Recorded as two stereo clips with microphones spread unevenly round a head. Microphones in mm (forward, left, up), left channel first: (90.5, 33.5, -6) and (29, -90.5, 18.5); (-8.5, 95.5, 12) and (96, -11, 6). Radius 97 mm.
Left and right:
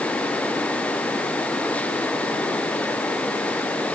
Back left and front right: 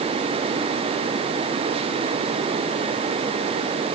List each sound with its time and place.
Only background noise.